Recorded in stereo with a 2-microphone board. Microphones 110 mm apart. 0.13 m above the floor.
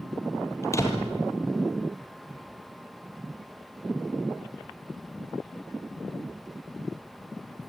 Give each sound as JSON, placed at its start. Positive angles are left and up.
{"t": 0.6, "sound": "a door slam", "side_deg": 25, "distance_m": 3.0}